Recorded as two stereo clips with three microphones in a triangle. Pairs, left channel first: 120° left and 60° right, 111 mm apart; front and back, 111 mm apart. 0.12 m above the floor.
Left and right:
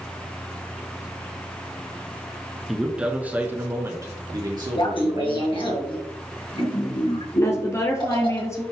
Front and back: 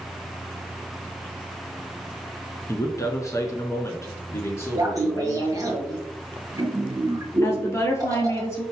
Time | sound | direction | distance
2.7 | a man speaking | 25° left | 1.4 m
4.7 | laughter | 135° left | 2.5 m
7.4 | a woman speaking | 60° left | 2 m